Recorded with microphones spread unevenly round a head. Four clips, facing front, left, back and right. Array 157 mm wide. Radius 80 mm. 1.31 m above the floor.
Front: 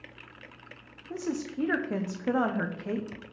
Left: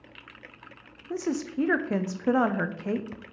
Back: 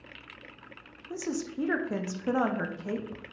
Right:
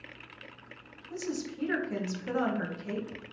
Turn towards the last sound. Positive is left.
turn(degrees=80)